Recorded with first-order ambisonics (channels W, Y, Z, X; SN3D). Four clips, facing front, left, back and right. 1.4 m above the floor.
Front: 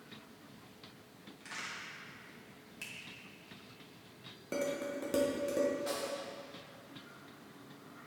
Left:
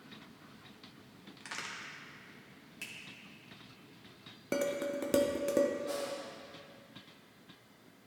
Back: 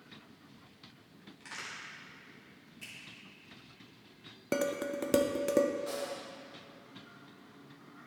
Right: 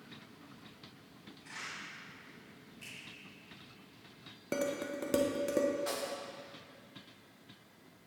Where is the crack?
95° left, 1.6 m.